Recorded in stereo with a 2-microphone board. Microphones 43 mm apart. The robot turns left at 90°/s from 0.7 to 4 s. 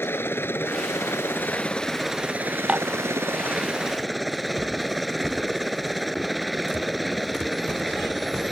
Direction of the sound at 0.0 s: 120° left.